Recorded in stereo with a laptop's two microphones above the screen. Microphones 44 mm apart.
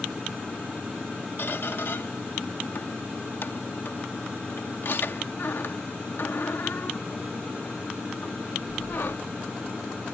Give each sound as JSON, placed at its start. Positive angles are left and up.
{"t": 1.4, "sound": "a squeak", "side_deg": 55}